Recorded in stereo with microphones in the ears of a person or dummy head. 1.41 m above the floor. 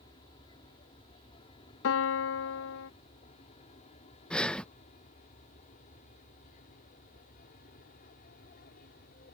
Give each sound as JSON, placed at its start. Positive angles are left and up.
{"t": 0.0, "sound": "an aircraft", "side_deg": 25}
{"t": 1.8, "sound": "a piano", "side_deg": 70}
{"t": 4.3, "sound": "breathing", "side_deg": 5}